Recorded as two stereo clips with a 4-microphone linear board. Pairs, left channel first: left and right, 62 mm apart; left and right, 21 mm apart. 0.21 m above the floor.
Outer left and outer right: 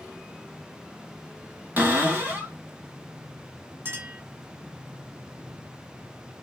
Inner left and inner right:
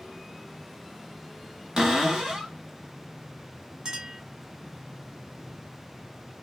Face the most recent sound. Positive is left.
turn(degrees=-40)  # may be behind; listen again after turning